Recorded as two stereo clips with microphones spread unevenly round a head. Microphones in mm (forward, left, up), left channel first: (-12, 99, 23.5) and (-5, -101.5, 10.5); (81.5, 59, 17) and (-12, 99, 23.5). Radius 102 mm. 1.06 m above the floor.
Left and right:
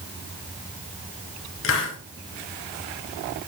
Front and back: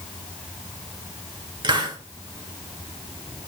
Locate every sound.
1.6 s a hiss: 115° left, 2 m